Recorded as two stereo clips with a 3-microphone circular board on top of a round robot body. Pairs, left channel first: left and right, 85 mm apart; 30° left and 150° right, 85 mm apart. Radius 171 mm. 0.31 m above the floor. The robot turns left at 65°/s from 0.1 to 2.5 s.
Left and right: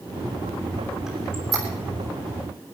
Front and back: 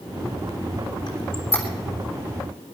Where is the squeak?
5° right, 3 m; by 1.6 s 45° right, 3 m.